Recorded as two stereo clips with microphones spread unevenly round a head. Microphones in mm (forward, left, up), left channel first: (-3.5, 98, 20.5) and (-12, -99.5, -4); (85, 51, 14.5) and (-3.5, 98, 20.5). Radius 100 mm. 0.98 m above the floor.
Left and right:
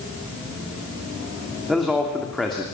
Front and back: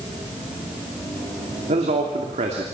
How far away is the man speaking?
About 2.5 m.